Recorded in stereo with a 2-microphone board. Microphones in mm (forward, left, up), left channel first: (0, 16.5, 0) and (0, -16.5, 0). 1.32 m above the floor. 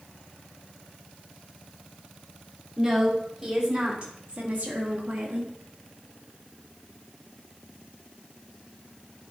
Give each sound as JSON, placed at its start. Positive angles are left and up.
{"t": 2.8, "sound": "a woman speaking", "side_deg": -20, "distance_m": 4.0}